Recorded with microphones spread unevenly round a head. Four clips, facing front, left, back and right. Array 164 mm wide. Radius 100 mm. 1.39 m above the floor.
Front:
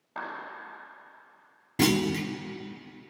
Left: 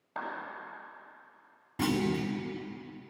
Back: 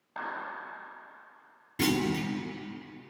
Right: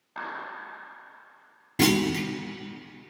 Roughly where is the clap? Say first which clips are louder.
Right 2 dB, even; ahead left.